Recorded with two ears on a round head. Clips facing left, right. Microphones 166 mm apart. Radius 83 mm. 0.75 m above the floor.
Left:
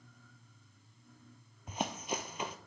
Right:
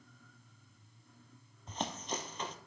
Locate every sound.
1.7 s running footsteps: 10° left (ahead or behind), 0.9 m